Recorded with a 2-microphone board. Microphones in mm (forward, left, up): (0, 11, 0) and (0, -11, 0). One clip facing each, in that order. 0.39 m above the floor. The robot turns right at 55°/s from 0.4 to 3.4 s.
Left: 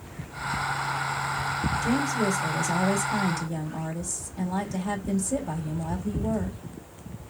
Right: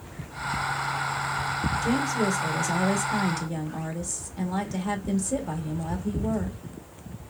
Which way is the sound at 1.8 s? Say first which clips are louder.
Even; 10° right (ahead or behind).